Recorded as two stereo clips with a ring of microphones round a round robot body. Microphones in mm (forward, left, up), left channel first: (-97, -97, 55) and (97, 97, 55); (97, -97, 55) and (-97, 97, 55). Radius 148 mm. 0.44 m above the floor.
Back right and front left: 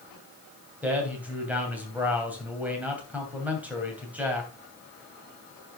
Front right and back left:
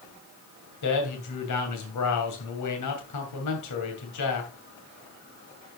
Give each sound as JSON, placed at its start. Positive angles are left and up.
{"t": 0.8, "sound": "a man speaking", "azimuth_deg": -40, "distance_m": 2.5}